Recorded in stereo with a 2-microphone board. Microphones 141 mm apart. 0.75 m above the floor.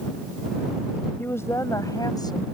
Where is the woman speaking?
15° left (ahead or behind); by 2.5 s 30° left (ahead or behind).